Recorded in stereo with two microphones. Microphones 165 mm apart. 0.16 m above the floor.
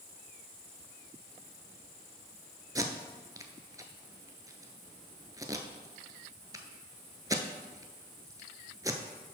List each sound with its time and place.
2.8 s tape being pulled: 20° right (ahead or behind), 0.6 m